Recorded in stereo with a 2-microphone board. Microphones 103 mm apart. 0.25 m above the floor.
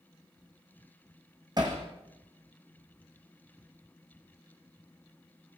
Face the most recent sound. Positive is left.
turn(degrees=-40)  # may be behind; listen again after turning